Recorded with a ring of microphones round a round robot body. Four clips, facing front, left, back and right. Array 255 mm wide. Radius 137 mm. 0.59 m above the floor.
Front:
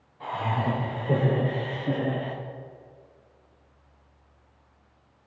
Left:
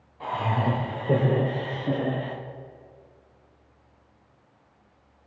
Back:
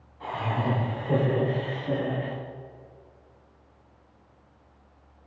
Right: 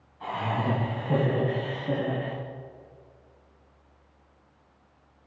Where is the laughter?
90° left, 2.5 m; by 2.4 s 45° left, 1.2 m.